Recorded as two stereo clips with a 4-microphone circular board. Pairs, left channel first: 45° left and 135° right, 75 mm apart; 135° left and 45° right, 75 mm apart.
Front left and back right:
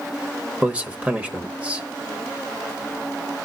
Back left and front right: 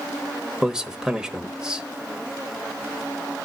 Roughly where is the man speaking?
Right.